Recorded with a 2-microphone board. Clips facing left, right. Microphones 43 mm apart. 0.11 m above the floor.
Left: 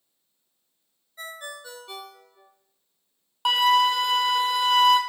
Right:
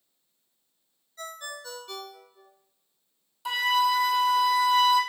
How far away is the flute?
About 0.7 m.